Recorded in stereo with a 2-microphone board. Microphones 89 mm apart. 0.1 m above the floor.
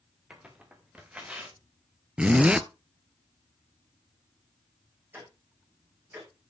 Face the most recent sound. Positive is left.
turn(degrees=-25)  # may be behind; listen again after turning